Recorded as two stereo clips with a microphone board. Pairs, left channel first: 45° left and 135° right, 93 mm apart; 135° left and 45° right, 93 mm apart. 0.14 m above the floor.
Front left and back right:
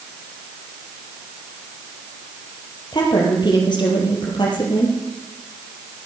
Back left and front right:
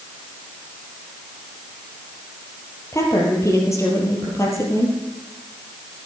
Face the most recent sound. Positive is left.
turn(degrees=80)